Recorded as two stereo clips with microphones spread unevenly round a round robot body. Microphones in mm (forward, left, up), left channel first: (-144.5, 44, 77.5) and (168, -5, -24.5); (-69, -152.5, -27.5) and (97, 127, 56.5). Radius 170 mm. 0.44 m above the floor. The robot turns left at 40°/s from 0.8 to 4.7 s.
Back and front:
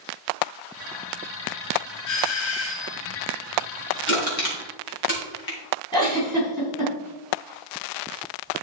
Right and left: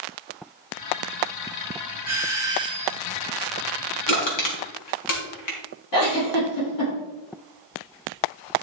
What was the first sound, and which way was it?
A doorbell, 175° left.